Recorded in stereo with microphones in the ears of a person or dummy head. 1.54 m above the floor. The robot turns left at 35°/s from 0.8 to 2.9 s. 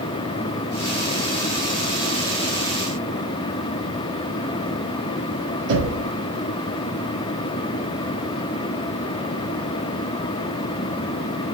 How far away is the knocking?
About 1.8 m.